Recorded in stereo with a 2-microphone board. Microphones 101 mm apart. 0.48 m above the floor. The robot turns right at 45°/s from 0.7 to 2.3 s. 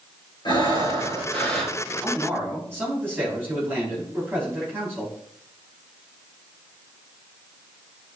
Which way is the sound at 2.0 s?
10° right (ahead or behind).